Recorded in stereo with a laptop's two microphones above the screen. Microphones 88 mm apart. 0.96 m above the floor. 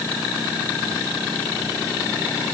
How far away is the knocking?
I don't hear knocking.